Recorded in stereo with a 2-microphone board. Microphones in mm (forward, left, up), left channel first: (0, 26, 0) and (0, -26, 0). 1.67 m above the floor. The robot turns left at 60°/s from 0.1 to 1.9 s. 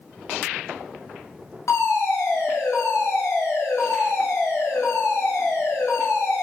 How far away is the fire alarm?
About 4.5 m.